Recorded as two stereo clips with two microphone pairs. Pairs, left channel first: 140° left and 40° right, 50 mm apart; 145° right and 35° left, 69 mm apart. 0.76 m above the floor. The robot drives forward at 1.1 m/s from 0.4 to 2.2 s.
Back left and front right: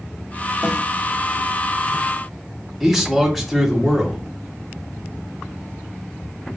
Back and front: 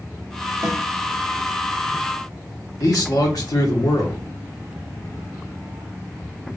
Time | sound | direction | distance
0.6 | a snare drum | 35° left | 1.7 m
2.8 | a man speaking | 125° right | 1.6 m